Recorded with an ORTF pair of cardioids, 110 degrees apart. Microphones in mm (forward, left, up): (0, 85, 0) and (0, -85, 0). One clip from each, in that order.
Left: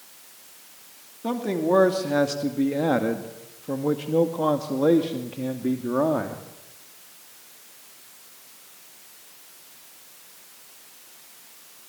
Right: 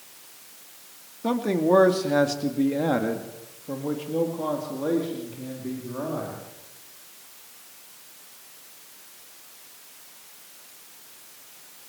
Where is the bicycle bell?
I don't hear a bicycle bell.